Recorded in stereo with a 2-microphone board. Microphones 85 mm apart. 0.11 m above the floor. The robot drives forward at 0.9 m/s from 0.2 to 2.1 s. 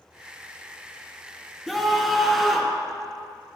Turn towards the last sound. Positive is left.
turn(degrees=0)  # may be behind; listen again after turning